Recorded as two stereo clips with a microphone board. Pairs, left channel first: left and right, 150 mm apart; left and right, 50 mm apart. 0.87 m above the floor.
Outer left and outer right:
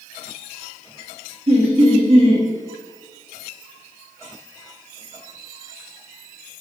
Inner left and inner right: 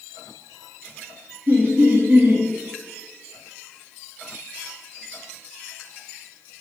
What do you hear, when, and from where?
1.5 s laughter: 40° right (ahead or behind), 0.9 m